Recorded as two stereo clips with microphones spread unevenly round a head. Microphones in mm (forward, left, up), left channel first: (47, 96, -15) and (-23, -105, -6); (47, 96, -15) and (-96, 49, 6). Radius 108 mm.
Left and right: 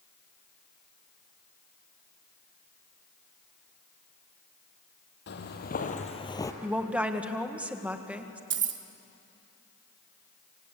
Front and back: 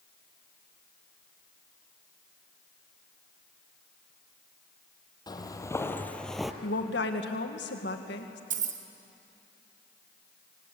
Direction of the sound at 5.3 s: 80° left.